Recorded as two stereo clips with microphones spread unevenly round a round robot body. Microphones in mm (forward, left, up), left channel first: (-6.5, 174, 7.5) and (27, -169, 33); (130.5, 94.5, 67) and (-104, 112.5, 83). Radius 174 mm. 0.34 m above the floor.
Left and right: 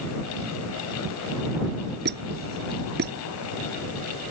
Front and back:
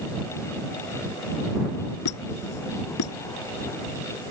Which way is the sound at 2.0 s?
20° right.